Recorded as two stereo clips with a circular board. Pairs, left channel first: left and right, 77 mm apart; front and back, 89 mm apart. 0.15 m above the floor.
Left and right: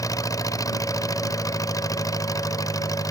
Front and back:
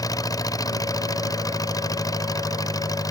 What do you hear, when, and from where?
0.0 s an engine running: 50° left